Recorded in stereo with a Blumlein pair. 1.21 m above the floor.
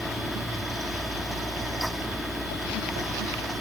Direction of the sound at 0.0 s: 5° right.